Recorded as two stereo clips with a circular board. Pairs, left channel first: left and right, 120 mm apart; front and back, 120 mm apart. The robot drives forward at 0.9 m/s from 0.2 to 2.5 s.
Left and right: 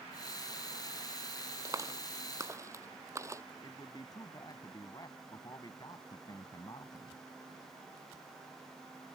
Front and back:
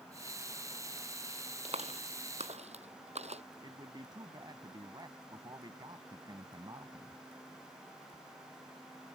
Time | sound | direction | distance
1.6 | a clap | 150° right | ?
3.6 | a man speaking | 135° left | ?